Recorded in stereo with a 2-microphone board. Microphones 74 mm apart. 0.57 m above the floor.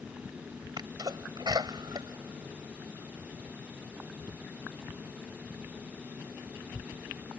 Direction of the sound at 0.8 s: 70° right (ahead or behind).